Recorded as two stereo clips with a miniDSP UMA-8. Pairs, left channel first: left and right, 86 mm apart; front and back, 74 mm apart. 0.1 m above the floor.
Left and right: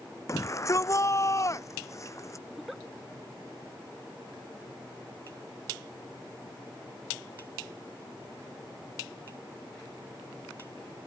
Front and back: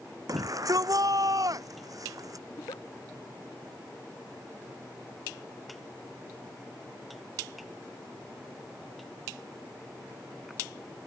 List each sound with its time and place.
0.3 s a shout: 140° left
2.5 s a giggle: straight ahead